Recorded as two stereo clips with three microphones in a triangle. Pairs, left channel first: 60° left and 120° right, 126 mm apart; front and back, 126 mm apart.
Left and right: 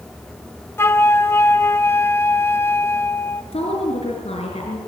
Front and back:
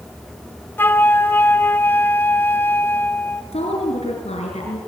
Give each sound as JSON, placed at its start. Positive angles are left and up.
{"t": 0.8, "sound": "a flute", "azimuth_deg": 35, "distance_m": 1.0}
{"t": 3.5, "sound": "a woman speaking", "azimuth_deg": 30, "distance_m": 6.0}